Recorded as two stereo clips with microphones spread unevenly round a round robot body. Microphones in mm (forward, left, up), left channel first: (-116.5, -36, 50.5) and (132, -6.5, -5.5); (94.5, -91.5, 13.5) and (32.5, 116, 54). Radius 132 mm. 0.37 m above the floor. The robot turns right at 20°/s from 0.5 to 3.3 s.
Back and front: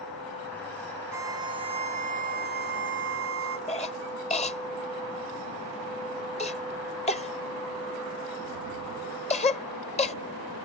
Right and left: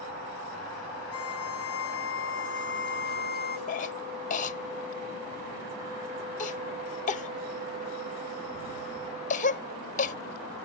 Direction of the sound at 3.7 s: 105° right.